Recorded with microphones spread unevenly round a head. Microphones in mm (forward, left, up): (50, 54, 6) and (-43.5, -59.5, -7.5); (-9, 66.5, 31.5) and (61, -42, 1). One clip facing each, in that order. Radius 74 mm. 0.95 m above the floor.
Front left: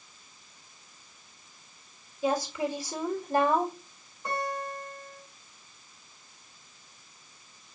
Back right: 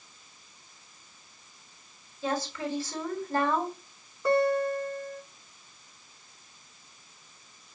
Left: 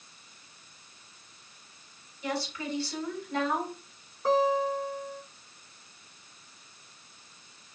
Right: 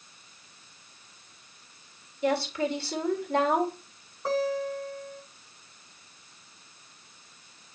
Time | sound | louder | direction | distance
2.2 | a woman speaking | front left 3 dB, right 7 dB | 30° right | 3.5 m
4.2 | a guitar | back right 10 dB, left 3 dB | 145° right | 5 m